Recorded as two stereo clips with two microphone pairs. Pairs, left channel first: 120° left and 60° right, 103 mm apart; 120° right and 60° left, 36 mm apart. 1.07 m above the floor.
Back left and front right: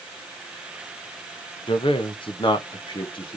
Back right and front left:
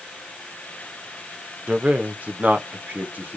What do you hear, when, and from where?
1.7 s a man speaking: 105° left, 0.8 m; by 3.4 s 85° left, 1.6 m